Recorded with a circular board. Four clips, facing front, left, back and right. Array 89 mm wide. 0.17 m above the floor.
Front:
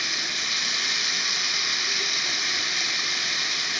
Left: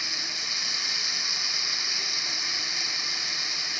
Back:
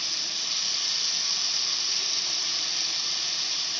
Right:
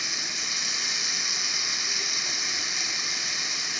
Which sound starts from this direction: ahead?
Running water, at 0.0 s.